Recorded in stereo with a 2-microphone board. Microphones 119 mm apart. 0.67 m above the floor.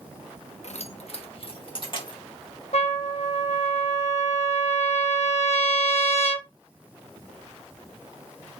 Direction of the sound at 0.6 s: 70° left (ahead or behind).